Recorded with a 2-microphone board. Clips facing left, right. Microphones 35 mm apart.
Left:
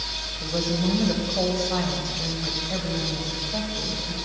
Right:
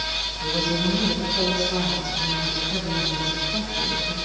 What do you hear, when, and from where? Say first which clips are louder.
0.4 s a woman speaking: right 1 dB; 60° left (ahead or behind), 2.5 m; by 4.2 s 30° left (ahead or behind), 3 m